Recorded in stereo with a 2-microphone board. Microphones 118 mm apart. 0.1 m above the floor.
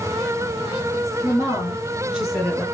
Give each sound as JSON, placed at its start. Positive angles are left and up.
{"t": 1.2, "sound": "a woman speaking", "side_deg": -35, "distance_m": 1.9}